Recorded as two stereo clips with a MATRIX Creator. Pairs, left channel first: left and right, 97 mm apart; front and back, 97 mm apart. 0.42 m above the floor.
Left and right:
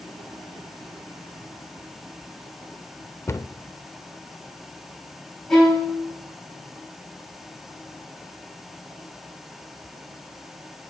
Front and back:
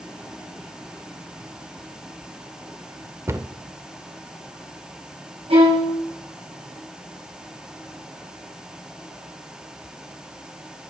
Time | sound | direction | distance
3.3 | a cupboard door | 135° left | 0.7 m
5.5 | a violin | 175° left | 7.5 m